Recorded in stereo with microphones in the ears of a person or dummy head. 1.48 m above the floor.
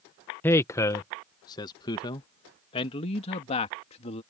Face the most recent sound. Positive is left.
turn(degrees=35)  # may be behind; listen again after turning